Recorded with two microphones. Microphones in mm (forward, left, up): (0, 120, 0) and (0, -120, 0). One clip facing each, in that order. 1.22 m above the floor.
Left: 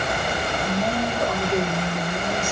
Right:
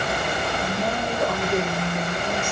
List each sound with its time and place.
0.6 s a woman speaking: centre (ahead or behind), 1.4 m